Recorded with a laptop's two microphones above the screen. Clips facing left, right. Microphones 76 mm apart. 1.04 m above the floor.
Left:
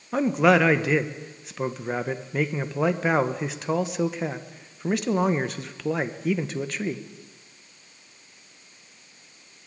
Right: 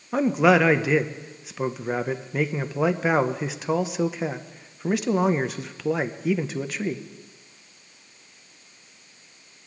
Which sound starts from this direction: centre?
A man speaking, at 0.1 s.